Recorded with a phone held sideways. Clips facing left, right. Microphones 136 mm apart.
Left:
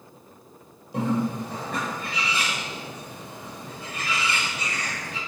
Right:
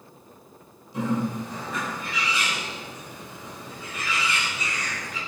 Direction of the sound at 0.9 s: 70° left (ahead or behind).